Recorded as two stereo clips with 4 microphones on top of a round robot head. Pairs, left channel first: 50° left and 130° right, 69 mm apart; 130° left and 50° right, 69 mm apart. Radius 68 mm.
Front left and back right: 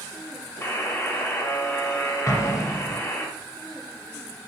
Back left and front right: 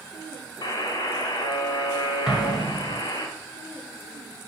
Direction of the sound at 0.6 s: 110° left.